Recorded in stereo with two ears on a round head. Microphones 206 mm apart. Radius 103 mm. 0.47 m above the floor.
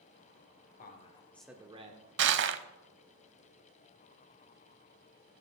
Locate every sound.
0.8 s a man speaking: 40° left (ahead or behind), 1.4 m; by 2.1 s 40° right (ahead or behind), 1.4 m
2.2 s crushing: 50° right (ahead or behind), 0.6 m